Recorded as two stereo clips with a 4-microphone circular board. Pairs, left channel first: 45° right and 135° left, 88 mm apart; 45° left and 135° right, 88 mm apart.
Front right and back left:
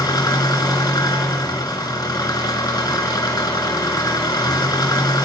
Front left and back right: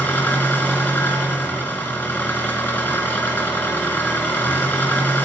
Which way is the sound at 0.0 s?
20° right.